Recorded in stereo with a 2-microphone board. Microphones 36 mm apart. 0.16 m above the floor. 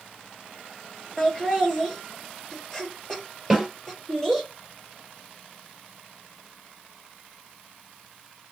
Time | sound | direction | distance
1.2 | laughter | 10° left (ahead or behind) | 3.5 m
3.5 | a snare drum | 5° right (ahead or behind) | 3.5 m